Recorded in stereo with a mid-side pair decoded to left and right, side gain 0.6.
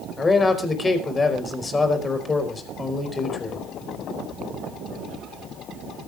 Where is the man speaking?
25° left, 4.5 m.